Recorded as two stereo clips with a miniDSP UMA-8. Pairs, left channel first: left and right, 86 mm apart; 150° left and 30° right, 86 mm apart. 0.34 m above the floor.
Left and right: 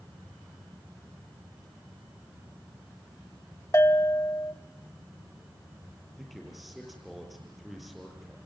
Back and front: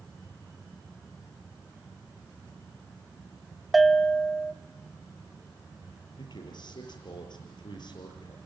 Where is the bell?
60° left, 1.1 m.